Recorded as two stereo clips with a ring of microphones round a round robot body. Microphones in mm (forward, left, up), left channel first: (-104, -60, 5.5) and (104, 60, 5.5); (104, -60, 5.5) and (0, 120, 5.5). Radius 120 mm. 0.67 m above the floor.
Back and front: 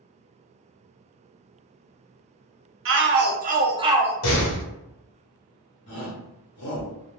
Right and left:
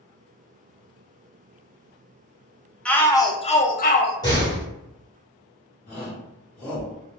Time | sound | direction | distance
2.9 | a shout | 25° left | 0.7 m
4.2 | a door slam | 135° right | 1.1 m
5.9 | a shout | 120° right | 1.0 m